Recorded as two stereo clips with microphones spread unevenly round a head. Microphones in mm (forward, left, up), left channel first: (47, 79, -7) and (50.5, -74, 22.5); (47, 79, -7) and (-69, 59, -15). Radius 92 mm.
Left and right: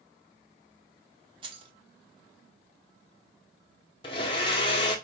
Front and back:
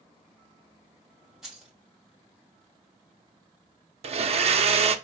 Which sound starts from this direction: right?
Keys jangling, at 1.4 s.